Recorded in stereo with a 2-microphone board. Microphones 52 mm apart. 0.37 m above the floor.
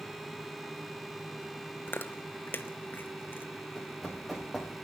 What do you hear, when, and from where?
1.9 s chewing: 40° left (ahead or behind), 0.8 m
3.8 s running footsteps: 5° right (ahead or behind), 2.5 m